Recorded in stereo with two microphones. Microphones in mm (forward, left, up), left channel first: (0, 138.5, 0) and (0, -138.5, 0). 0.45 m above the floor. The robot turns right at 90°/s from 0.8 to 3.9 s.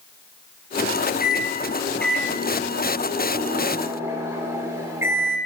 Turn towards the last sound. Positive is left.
turn(degrees=-15)